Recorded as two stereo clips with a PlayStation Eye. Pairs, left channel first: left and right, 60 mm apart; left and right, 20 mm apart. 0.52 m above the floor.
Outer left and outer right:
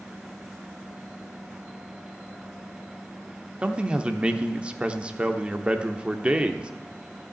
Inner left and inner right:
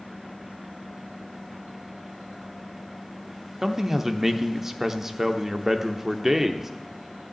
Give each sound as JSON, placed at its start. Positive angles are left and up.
{"t": 3.6, "sound": "a man speaking", "side_deg": -20, "distance_m": 0.9}